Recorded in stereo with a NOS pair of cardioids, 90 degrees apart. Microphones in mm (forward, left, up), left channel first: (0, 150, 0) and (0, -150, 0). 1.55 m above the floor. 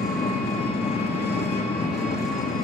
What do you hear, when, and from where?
0.0 s an engine running: 35° left, 2.5 m